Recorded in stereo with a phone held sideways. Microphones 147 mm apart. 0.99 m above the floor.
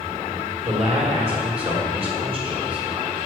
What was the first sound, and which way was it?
A man speaking, 45° right (ahead or behind).